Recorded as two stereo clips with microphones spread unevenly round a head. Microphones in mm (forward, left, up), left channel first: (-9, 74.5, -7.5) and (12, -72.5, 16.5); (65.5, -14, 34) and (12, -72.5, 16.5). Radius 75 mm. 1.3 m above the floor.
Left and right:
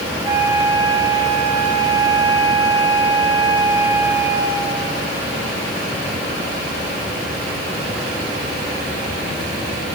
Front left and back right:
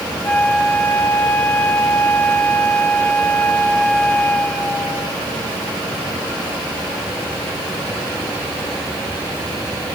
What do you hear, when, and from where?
0.2 s a flute: 15° right, 3 m